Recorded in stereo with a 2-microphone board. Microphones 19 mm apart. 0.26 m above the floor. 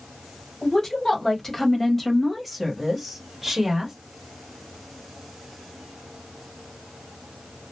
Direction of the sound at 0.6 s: 25° left (ahead or behind).